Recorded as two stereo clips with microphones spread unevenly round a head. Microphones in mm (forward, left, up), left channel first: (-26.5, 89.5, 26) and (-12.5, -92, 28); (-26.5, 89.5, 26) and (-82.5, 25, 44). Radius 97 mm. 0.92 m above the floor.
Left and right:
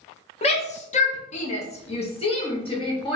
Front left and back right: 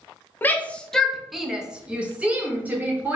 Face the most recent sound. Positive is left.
turn(degrees=155)